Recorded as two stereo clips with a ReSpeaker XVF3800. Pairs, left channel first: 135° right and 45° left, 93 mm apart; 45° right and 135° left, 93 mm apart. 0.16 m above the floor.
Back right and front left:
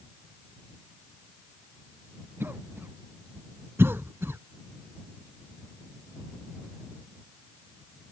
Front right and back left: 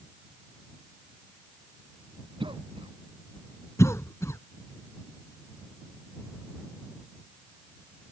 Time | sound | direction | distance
2.4 | a cough | 110° left | ?
3.8 | a cough | 5° right | ?